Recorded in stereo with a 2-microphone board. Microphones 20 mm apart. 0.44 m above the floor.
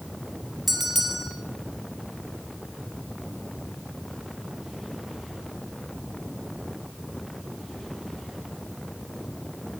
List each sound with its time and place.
0.7 s a bell: 5° right (ahead or behind), 1.0 m